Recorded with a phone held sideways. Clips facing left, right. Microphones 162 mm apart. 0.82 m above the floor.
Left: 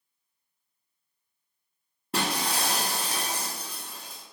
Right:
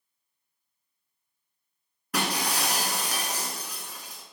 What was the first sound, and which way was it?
Breaking glass, 25° left (ahead or behind).